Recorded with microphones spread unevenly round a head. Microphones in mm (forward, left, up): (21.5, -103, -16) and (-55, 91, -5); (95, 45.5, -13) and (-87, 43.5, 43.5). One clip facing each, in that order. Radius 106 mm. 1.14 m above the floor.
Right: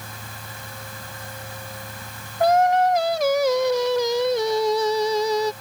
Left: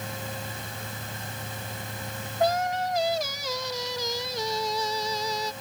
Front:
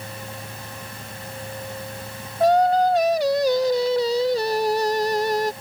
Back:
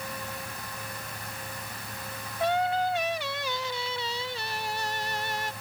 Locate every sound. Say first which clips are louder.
2.4 s singing: right 8 dB, front 10 dB; 35° right